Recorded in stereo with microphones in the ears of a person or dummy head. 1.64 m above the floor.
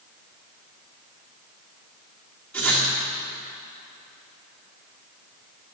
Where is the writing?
5° left (ahead or behind), 1.9 m.